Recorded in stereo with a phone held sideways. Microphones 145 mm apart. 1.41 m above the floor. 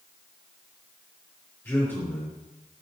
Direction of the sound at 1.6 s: 15° left (ahead or behind).